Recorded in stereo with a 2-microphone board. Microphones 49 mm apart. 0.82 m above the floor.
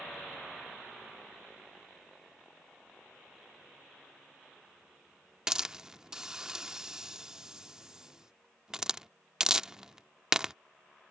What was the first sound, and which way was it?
A hiss, 15° right (ahead or behind).